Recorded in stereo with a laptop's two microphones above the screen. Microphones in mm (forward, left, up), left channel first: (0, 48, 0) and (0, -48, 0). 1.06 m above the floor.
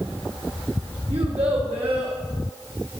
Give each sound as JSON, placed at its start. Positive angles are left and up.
{"t": 1.1, "sound": "a child speaking", "side_deg": -80, "distance_m": 0.9}